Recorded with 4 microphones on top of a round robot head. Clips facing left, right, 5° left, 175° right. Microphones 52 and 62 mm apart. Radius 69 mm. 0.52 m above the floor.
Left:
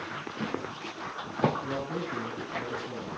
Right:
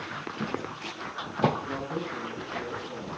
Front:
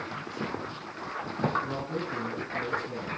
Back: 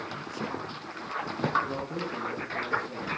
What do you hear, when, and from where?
1.6 s a man speaking: 50° left, 8.5 m